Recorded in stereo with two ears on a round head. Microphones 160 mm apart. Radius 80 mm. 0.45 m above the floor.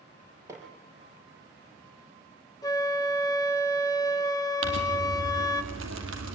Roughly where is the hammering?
Centre.